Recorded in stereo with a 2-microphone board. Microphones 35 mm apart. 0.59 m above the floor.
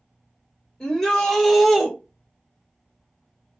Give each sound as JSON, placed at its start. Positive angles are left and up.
{"t": 0.8, "sound": "a shout", "side_deg": 20, "distance_m": 1.7}